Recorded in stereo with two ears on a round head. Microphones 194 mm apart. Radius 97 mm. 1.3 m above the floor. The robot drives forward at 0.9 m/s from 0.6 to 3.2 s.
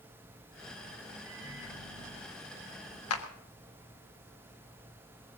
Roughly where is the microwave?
Centre.